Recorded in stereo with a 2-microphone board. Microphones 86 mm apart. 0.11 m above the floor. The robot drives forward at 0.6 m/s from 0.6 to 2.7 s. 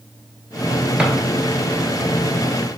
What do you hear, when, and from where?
1.0 s a drawer: 15° right (ahead or behind), 1.0 m